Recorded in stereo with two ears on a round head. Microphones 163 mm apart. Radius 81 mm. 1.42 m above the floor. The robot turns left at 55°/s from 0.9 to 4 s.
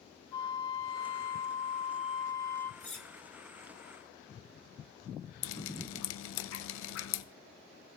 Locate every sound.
0.3 s a flute: 130° left, 0.9 m; by 2.7 s 30° left, 0.9 m
2.8 s cutlery clinking: 10° left (ahead or behind), 1.3 m; by 3.1 s centre (ahead or behind), 1.3 m
5.4 s dripping: 80° left, 0.5 m